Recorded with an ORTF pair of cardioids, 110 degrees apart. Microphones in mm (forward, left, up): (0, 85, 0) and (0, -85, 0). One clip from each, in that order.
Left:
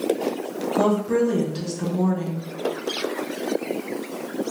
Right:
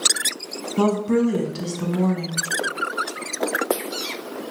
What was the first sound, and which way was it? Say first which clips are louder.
A woman speaking: even; 20° right.